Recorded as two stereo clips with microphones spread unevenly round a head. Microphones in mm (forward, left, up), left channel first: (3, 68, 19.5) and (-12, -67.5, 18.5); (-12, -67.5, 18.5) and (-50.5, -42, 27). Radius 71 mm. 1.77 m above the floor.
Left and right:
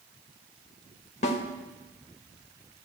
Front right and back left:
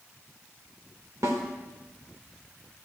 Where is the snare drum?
120° left, 1.8 m.